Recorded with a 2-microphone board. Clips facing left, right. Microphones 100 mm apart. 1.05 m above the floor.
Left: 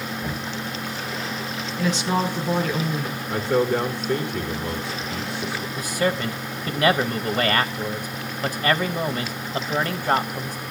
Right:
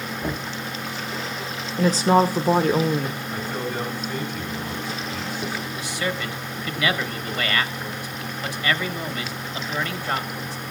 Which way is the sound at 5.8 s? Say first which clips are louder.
Left 7 dB; 40° left (ahead or behind).